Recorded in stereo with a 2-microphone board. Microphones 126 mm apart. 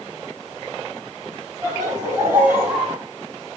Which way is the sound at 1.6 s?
30° right (ahead or behind).